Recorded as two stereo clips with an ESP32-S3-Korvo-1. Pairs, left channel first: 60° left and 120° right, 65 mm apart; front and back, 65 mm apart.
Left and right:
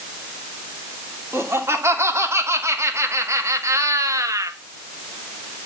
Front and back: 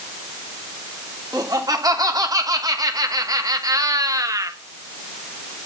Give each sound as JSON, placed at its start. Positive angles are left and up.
{"t": 1.3, "sound": "laughter", "azimuth_deg": -165, "distance_m": 3.0}